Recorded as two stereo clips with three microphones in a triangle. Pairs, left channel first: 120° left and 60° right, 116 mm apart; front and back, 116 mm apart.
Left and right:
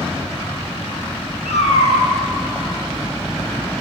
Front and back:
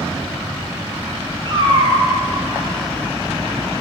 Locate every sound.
1.4 s a cat meowing: 135° left, 3 m